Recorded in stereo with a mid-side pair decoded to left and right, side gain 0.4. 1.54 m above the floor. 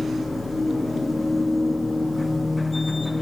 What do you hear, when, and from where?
0.0 s a machine running: 20° left, 0.7 m